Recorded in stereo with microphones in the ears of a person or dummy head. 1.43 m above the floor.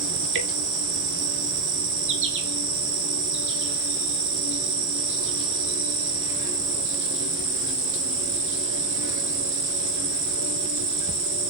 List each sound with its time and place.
0.0 s an insect: 65° right (ahead or behind), 3 m